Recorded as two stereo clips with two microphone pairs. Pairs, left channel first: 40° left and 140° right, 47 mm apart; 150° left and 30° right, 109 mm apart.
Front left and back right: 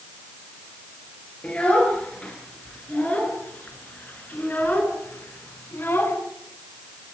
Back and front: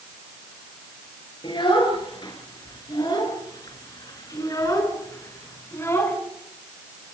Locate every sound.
1.4 s a child speaking: 100° left, 8.5 m; by 6.2 s 80° left, 5 m